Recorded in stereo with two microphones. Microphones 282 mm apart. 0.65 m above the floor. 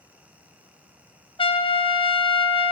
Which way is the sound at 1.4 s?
20° left (ahead or behind).